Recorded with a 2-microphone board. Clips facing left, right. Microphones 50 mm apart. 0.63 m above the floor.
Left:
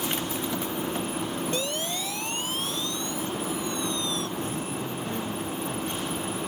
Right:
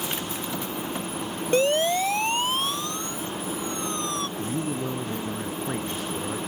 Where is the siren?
40° right (ahead or behind); by 4.3 s 50° right (ahead or behind).